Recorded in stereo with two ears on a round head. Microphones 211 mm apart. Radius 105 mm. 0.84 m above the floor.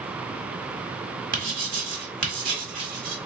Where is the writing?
40° right (ahead or behind), 1.4 m.